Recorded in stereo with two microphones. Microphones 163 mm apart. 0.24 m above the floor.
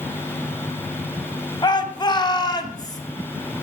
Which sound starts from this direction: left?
A shout, at 1.6 s.